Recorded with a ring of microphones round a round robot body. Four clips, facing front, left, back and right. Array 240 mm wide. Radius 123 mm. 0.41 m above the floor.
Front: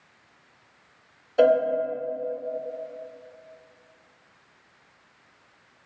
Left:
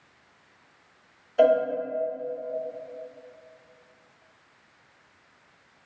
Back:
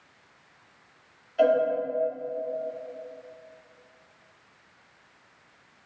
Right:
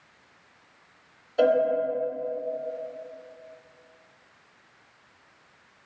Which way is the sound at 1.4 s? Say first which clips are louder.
Left 2 dB, front 3 dB; 5° right.